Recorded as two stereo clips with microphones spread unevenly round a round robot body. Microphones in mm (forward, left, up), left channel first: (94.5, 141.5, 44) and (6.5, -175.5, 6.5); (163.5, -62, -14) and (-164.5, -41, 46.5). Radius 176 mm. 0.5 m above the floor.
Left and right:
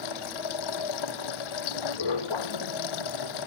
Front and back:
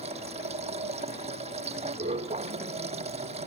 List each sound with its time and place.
0.0 s running water: 100° left